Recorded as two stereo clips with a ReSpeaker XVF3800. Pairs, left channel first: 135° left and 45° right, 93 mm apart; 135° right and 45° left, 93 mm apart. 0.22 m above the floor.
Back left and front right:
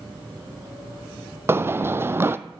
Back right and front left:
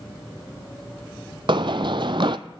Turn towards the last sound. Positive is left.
turn(degrees=15)